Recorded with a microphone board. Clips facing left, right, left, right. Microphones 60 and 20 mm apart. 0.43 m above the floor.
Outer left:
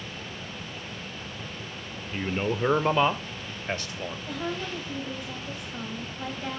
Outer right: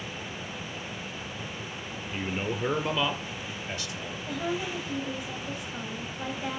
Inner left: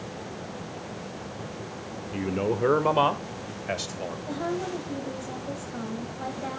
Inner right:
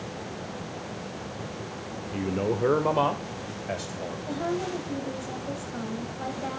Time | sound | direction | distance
2.1 | a man speaking | 15° left (ahead or behind) | 0.8 m
4.3 | a woman speaking | 5° right (ahead or behind) | 2.5 m